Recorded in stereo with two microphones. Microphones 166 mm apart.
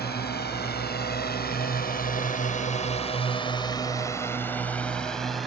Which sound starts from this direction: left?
A drone, at 0.0 s.